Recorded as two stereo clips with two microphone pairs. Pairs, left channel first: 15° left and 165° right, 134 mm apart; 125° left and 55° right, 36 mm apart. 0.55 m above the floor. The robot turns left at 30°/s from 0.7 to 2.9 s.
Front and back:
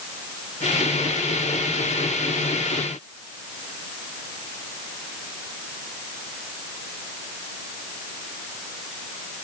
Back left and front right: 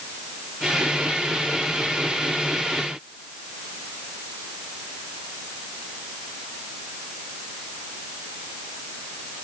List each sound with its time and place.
Only background noise.